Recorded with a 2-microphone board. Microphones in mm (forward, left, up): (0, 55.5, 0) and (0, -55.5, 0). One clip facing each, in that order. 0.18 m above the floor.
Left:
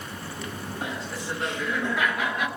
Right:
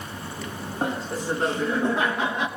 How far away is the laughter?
About 2 m.